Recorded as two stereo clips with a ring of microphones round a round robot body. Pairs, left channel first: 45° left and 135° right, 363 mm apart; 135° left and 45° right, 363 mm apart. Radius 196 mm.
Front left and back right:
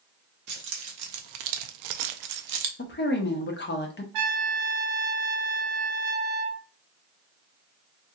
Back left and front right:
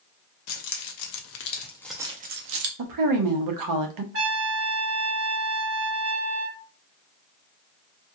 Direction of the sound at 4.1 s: 100° right.